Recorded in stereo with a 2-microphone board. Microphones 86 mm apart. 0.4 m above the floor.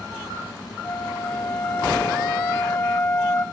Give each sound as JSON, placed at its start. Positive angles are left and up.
{"t": 0.8, "sound": "a flute", "side_deg": 40, "distance_m": 1.1}